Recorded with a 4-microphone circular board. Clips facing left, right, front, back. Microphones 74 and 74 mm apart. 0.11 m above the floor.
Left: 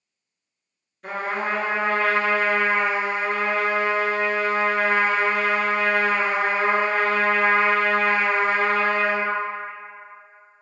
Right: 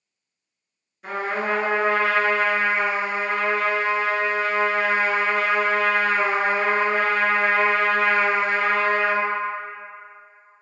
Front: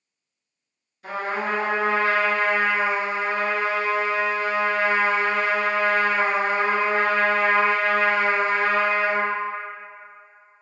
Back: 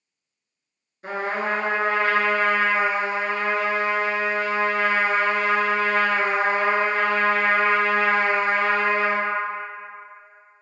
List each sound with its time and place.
1.0 s a trumpet: 170° right, 1.0 m